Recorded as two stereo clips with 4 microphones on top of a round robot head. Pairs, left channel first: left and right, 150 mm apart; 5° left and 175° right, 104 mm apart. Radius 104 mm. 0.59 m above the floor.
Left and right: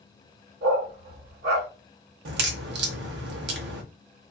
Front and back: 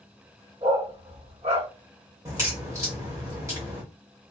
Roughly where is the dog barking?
Behind right.